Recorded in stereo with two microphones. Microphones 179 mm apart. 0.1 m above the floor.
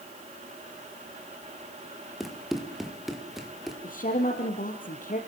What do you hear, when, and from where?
2.2 s running footsteps: centre (ahead or behind), 3 m
3.8 s a woman speaking: 50° left (ahead or behind), 2.5 m